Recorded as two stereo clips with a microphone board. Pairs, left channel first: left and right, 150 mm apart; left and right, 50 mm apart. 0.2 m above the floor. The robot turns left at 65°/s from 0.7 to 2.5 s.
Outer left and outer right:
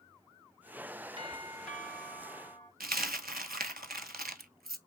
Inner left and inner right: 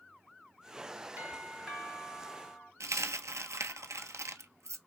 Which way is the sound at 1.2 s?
140° right.